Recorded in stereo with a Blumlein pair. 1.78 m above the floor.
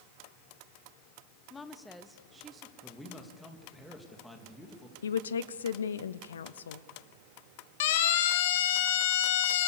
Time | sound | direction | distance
1.5 | a woman speaking | 15° left | 1.7 m
2.8 | a man speaking | 5° left | 3 m
5.0 | a woman speaking | 65° left | 0.9 m
7.8 | a siren | 55° left | 2 m